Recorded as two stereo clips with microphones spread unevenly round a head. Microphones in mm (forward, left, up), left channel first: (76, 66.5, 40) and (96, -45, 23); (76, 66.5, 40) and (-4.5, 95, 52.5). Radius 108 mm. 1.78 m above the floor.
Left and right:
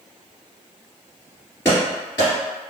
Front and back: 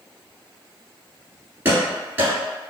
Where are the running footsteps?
140° left, 2.0 m.